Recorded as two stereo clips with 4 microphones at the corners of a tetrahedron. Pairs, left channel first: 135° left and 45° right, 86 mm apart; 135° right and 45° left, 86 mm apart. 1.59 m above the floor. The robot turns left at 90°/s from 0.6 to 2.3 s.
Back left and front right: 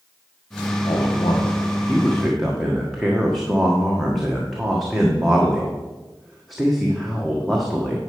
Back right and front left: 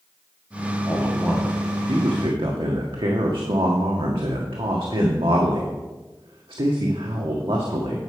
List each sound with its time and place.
0.9 s a man speaking: 175° left, 1.4 m; by 8.0 s 45° left, 1.4 m